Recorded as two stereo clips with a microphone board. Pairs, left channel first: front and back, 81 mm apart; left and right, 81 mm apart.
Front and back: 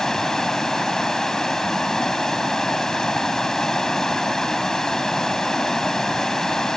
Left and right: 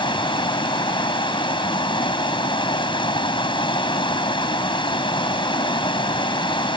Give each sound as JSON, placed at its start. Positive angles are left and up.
{"t": 0.0, "sound": "running water", "azimuth_deg": 85}